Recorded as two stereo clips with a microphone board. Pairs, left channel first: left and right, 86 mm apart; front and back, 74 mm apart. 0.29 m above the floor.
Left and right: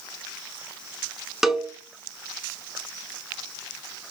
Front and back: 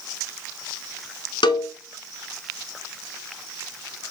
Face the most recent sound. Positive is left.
turn(degrees=-5)